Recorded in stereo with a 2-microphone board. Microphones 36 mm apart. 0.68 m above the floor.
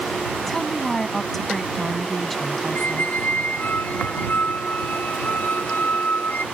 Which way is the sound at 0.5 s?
5° left (ahead or behind).